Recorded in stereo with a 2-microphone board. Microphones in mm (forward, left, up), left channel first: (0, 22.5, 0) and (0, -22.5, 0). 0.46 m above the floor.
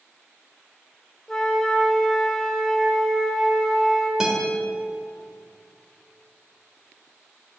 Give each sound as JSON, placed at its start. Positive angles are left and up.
{"t": 1.3, "sound": "a flute", "side_deg": 10, "distance_m": 1.4}
{"t": 4.2, "sound": "a guitar", "side_deg": -10, "distance_m": 2.0}